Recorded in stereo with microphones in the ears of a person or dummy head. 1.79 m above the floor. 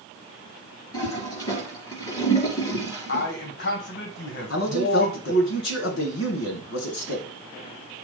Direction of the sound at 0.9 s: 25° left (ahead or behind).